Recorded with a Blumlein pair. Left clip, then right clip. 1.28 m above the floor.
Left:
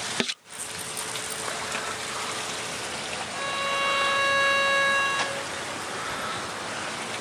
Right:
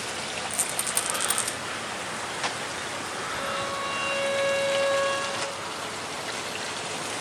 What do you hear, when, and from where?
0.5 s a rattle: 35° right, 2 m
3.3 s a violin: 30° left, 3.5 m